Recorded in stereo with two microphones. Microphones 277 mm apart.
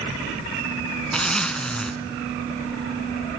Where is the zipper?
5° left (ahead or behind), 1.1 m.